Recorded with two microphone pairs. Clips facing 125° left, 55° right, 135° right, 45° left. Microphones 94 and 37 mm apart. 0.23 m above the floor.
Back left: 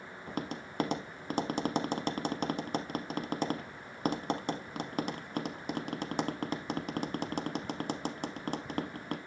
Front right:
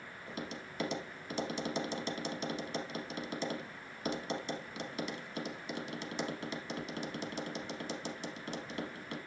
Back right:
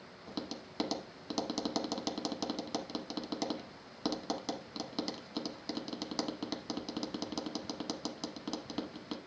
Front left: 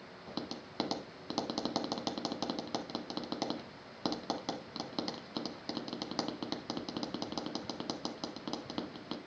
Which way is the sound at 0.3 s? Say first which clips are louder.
Back left 5 dB, even; 125° left.